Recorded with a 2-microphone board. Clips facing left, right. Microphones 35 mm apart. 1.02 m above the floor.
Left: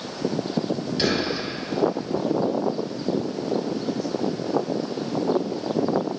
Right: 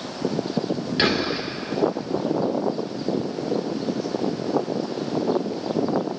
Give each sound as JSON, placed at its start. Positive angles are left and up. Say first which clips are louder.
{"t": 1.0, "sound": "whispering", "louder": "right 3 dB", "side_deg": -50, "distance_m": 2.5}